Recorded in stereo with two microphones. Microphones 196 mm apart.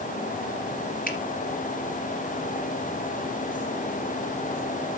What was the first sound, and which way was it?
A finger snap, 45° left (ahead or behind).